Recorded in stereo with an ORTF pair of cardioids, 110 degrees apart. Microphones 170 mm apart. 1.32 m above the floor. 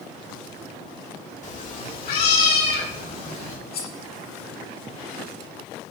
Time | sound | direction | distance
1.4 | a cat meowing | 45° left | 1.7 m
3.7 | cutlery clinking | 65° left | 1.9 m